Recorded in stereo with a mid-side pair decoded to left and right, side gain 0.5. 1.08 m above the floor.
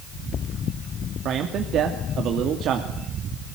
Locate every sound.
1.2 s a man speaking: 65° right, 2.5 m